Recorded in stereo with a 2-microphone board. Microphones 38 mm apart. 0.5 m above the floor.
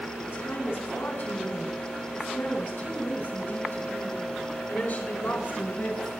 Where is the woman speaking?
80° left, 8.5 m; by 6.1 s 55° left (ahead or behind), 11.5 m.